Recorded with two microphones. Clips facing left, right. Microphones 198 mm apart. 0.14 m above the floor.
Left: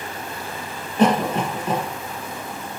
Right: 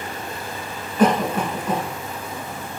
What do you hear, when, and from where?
1.0 s a cough: 30° left (ahead or behind), 1.4 m